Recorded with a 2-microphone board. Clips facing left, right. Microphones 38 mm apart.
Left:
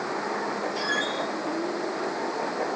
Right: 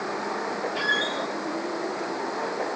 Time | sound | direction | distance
0.8 | a squeak | 30° right (ahead or behind) | 5 m